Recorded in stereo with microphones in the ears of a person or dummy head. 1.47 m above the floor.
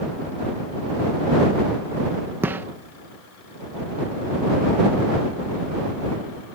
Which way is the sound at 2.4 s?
10° right (ahead or behind).